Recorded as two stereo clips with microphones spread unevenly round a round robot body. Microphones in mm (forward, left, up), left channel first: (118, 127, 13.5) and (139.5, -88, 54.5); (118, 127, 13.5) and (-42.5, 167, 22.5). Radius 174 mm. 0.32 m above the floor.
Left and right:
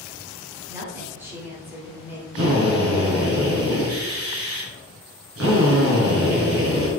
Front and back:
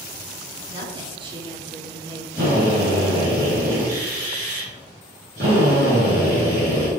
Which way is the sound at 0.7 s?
175° right.